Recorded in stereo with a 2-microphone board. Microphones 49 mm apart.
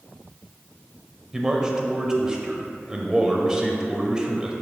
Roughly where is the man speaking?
Centre.